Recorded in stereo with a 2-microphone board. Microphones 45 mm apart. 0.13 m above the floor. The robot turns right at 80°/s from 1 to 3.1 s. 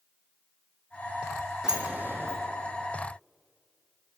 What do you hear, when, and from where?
1.6 s a sliding door: 10° right (ahead or behind), 1.0 m; by 2.4 s 70° right (ahead or behind), 1.0 m